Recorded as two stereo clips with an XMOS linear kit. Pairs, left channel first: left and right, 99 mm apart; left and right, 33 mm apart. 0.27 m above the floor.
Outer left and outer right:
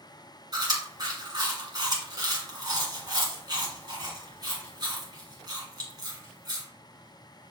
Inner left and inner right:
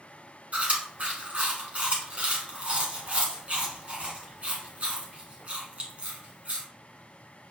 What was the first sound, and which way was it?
Chewing, 45° right (ahead or behind).